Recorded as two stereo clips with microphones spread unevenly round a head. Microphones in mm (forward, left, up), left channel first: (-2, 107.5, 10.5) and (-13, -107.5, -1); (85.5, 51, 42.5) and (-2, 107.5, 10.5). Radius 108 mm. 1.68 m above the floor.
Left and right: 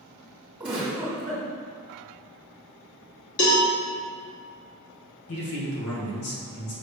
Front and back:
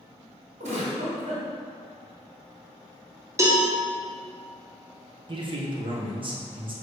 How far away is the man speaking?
About 1.7 m.